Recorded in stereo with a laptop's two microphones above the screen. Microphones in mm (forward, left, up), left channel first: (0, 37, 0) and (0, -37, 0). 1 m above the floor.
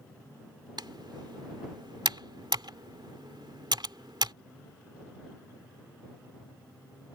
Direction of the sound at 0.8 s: 85° right.